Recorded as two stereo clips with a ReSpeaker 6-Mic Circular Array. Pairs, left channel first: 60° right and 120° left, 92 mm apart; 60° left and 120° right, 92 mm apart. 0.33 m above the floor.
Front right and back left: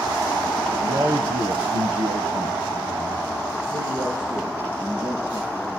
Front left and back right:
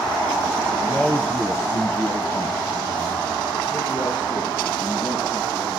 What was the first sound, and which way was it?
A man speaking, 145° left.